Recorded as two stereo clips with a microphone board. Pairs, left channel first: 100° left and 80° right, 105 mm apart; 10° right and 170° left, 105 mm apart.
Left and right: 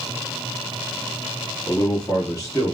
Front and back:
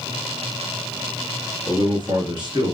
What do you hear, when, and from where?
1.7 s a man speaking: 145° left, 3 m